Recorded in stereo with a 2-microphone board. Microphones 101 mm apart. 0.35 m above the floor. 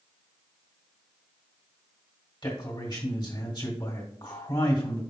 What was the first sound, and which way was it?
A man speaking, 50° left (ahead or behind).